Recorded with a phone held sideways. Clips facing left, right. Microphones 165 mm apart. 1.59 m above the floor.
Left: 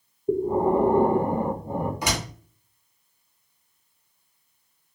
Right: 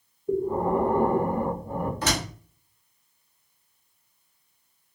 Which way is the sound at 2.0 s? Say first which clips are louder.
Right 1 dB; 15° left (ahead or behind).